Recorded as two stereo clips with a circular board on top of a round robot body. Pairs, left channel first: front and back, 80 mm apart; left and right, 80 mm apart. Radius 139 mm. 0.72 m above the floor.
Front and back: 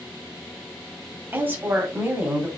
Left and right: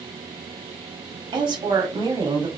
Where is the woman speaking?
115° right, 2.0 m.